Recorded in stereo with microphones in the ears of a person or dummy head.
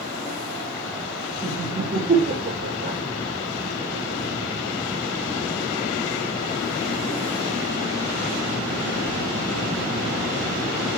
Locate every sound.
1.4 s laughter: 45° right (ahead or behind), 3.5 m; by 3.0 s 65° right (ahead or behind), 1.7 m